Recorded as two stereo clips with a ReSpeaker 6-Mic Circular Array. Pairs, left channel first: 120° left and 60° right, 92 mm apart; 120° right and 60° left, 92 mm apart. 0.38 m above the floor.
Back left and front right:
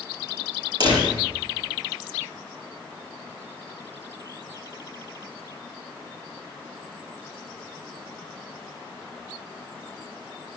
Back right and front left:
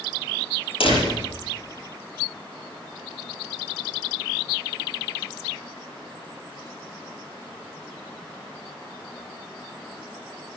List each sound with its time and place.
0.8 s a door slam: 100° right, 6.5 m